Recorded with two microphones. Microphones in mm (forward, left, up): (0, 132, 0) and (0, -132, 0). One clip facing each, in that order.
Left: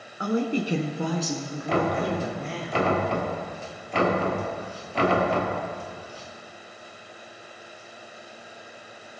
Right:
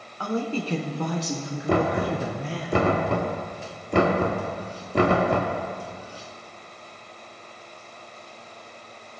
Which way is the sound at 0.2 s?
25° left (ahead or behind).